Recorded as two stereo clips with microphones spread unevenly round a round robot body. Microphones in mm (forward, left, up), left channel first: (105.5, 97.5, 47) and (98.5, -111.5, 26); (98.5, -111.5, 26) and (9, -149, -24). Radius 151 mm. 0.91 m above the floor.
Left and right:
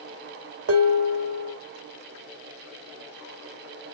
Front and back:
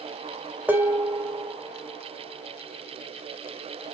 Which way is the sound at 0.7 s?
85° right.